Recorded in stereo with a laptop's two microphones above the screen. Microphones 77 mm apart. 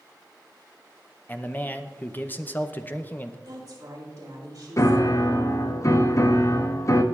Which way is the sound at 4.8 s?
45° left (ahead or behind).